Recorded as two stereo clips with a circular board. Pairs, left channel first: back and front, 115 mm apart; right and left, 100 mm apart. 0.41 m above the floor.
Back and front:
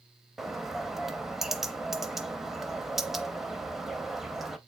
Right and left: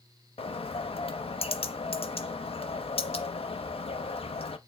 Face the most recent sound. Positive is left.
turn(degrees=-85)